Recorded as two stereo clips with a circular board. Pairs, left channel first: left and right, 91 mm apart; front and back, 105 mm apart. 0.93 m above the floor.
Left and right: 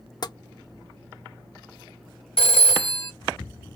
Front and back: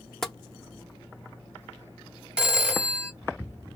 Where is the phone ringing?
95° left, 1.2 m.